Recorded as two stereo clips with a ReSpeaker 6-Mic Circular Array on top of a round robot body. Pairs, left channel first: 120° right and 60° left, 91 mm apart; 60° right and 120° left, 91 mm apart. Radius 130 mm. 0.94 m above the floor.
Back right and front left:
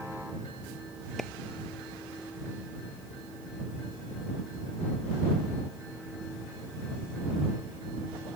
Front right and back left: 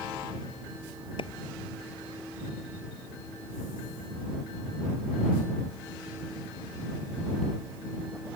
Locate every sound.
1.2 s a clap: 35° right